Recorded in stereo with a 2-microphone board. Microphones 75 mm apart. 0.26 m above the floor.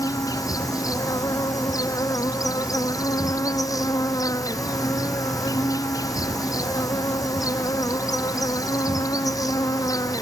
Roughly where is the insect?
Left.